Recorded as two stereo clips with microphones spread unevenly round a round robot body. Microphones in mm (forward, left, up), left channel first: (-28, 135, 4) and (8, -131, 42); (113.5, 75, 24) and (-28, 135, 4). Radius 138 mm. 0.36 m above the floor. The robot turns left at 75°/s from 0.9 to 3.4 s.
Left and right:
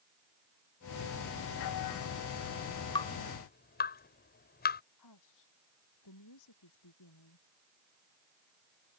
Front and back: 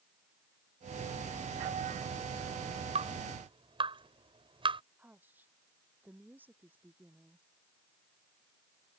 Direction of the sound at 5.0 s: 80° left.